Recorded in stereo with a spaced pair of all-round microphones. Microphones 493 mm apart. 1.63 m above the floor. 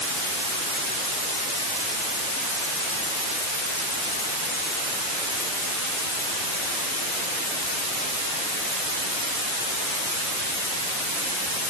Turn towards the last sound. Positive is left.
No sound to turn to.